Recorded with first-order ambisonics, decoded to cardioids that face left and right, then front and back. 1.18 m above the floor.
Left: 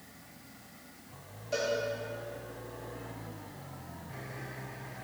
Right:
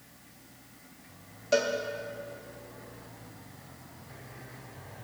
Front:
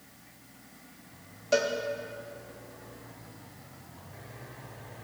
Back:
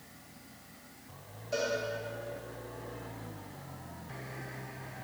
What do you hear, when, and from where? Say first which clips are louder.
1.5 s a cowbell: right 5 dB, front 6 dB; 40° right, 1.1 m